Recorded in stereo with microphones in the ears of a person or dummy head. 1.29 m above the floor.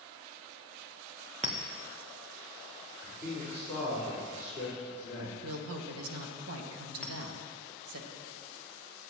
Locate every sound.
1.4 s a clink: 40° right (ahead or behind), 0.9 m
3.0 s a man speaking: 10° right (ahead or behind), 4.5 m
5.4 s a woman speaking: 85° right, 1.9 m
7.0 s a clink: 5° left (ahead or behind), 1.5 m